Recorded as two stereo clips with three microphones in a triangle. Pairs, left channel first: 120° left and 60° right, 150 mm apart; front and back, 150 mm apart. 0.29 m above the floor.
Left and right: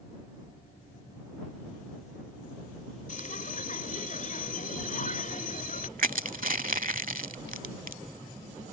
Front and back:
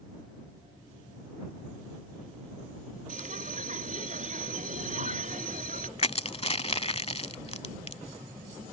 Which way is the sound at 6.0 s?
45° right.